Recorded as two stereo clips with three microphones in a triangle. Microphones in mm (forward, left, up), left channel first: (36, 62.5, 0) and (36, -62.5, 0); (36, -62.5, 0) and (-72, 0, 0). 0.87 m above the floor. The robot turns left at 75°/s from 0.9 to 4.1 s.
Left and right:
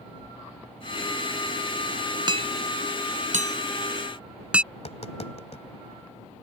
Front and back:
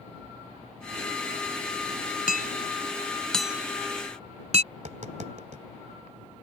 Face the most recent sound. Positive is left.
turn(degrees=125)